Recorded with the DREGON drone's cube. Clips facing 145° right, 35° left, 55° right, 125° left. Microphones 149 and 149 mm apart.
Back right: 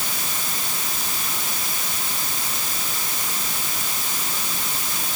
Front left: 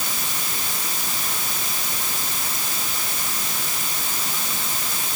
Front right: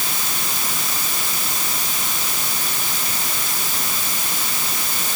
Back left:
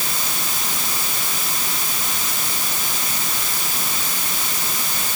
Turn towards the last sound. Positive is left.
No sound to turn to.